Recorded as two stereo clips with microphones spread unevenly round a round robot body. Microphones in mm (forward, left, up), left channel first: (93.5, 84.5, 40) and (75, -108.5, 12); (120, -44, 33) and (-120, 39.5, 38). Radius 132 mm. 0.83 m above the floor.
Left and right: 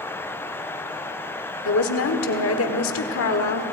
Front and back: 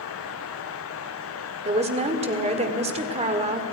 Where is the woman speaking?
95° left, 2 m.